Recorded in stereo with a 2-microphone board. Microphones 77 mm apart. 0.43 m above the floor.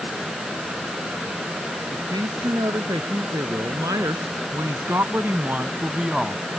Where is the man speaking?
65° right (ahead or behind); by 6.5 s 5° right (ahead or behind).